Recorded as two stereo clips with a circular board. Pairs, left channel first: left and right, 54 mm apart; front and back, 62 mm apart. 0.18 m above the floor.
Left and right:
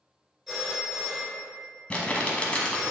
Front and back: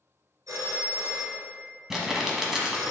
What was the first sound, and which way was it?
A phone ringing, 175° right.